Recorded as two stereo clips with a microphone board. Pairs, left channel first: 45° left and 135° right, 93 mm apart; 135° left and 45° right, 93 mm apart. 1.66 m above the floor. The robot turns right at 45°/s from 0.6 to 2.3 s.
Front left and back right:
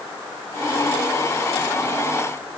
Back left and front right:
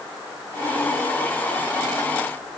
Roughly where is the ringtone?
No ringtone in this recording.